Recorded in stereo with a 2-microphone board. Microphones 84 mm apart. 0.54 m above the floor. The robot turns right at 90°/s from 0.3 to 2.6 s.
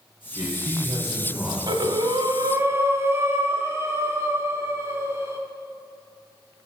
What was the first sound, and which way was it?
A man speaking, 80° right.